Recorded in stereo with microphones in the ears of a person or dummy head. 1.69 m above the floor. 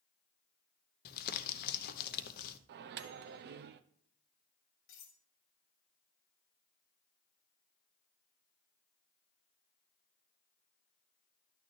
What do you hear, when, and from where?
1.1 s crumpling: 50° left (ahead or behind), 0.8 m
2.7 s a microwave: 60° right (ahead or behind), 0.8 m
4.9 s cutlery clinking: 55° left (ahead or behind), 2.5 m